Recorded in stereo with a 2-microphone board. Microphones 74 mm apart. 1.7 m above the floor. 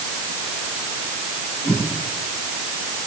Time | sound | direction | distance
1.6 | a whoosh | 20° left (ahead or behind) | 9.5 m